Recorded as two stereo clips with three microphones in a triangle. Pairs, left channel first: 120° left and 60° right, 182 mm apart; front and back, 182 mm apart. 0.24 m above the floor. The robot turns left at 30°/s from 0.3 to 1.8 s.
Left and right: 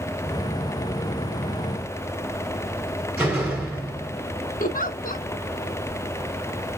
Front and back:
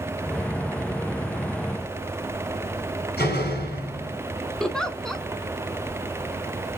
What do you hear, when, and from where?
3.2 s a door slam: 25° left, 2.5 m
4.6 s a giggle: 85° left, 0.6 m